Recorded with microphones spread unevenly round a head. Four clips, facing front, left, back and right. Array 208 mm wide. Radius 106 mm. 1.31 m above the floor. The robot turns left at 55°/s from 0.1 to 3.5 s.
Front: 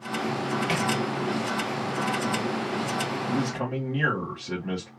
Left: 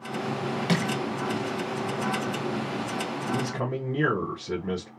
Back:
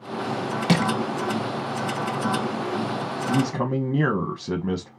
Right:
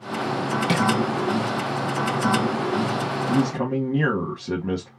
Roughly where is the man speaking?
Behind right.